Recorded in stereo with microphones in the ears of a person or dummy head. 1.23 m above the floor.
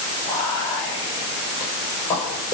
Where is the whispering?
15° left (ahead or behind), 5.5 m.